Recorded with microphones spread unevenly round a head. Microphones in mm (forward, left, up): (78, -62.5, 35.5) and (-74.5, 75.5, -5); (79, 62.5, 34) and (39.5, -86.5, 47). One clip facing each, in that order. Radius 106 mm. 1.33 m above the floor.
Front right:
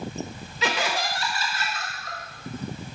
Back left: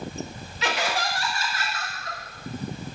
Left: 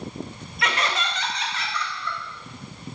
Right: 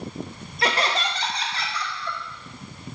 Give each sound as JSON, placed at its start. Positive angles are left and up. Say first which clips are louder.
{"t": 0.6, "sound": "laughter", "louder": "even, right 2 dB", "azimuth_deg": -50, "distance_m": 0.9}